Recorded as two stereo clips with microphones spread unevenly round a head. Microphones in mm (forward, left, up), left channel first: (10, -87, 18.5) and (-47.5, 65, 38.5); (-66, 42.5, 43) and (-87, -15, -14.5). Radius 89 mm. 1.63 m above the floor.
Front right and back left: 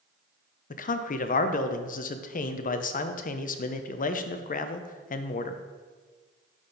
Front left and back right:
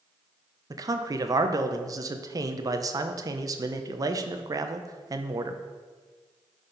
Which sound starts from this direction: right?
A man speaking, at 0.7 s.